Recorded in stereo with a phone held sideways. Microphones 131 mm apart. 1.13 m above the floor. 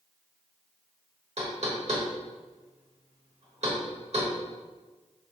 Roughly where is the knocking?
Right.